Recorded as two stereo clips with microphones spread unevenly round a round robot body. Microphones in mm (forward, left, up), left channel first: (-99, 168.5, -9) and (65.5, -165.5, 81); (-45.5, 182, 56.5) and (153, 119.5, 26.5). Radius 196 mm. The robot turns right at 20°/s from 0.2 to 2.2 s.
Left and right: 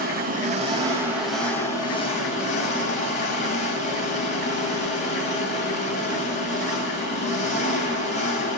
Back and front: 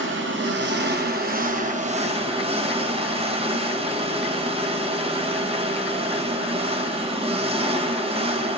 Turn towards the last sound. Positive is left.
turn(degrees=45)